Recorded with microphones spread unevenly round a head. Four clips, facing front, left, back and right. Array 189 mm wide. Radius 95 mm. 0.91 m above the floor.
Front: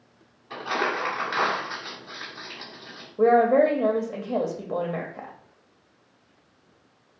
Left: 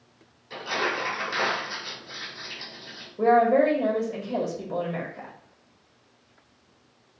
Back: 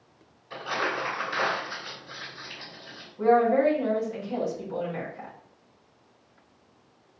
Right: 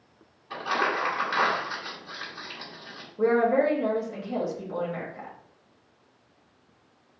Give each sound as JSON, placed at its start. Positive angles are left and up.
{"t": 0.5, "sound": "crumpling", "azimuth_deg": -25, "distance_m": 2.0}
{"t": 3.2, "sound": "a woman speaking", "azimuth_deg": 0, "distance_m": 1.4}